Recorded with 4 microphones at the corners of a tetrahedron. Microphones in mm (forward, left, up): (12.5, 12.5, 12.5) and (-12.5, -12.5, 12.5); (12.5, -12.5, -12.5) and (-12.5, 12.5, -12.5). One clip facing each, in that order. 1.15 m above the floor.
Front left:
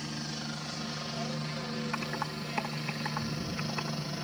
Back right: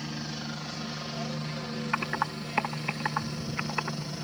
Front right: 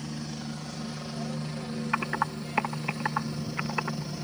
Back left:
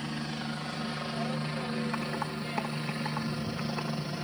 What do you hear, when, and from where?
0.0 s a helicopter: 150° left; by 4.2 s 115° left
1.9 s typing on a keyboard: 75° right